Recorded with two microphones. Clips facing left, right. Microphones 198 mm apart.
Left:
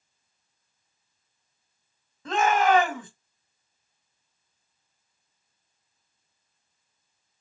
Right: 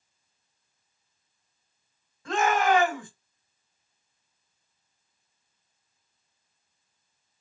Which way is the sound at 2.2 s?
25° left (ahead or behind).